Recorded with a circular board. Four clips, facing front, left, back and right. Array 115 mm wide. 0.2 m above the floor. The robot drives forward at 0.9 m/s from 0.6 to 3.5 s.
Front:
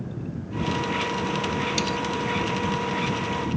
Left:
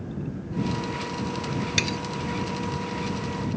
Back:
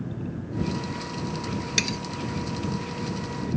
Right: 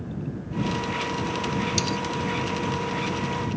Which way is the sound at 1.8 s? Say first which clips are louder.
Right 2 dB, front 4 dB; 130° left.